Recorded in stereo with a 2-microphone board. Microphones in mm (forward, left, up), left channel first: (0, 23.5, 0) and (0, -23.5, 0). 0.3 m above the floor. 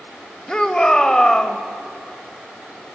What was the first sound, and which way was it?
A shout, 15° left (ahead or behind).